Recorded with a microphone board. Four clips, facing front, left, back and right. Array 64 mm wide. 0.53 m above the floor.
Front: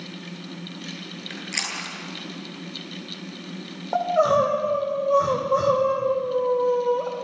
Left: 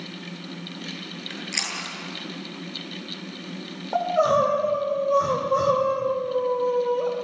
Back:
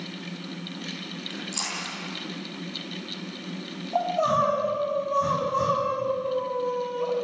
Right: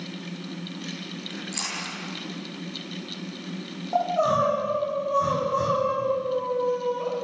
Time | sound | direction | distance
1.3 | chewing | 30° left | 9 m
3.9 | crying | 20° left | 7.5 m